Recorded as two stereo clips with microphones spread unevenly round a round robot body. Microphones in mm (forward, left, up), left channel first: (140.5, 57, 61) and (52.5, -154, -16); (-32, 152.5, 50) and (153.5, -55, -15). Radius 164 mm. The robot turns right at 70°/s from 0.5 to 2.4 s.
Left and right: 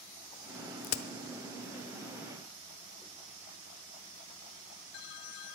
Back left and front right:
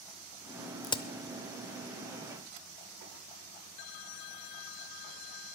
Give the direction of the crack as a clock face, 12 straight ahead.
11 o'clock.